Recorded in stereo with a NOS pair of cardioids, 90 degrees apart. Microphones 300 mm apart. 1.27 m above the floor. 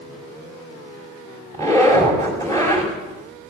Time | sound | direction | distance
1.5 | a zipper | 10° left | 5 m